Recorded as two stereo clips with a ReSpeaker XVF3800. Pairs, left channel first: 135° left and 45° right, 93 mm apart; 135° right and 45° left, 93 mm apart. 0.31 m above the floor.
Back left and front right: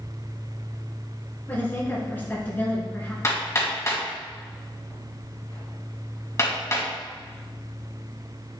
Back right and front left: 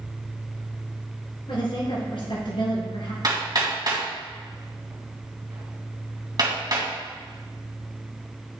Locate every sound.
1.5 s a woman speaking: 155° right, 3.5 m
3.2 s hammering: 85° left, 2 m